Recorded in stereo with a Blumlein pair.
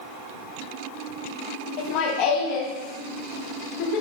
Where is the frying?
No frying in this recording.